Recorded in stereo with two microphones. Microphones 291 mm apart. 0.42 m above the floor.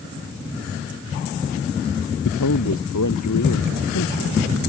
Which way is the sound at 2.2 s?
80° left.